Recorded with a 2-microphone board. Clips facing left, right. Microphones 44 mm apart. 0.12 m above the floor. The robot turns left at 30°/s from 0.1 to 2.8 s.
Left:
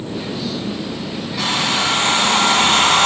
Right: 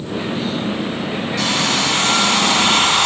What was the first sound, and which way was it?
A hair dryer, 175° left.